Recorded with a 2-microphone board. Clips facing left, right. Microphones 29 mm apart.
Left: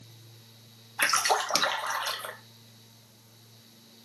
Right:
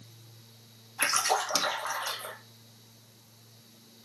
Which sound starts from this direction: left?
A splash, at 1.0 s.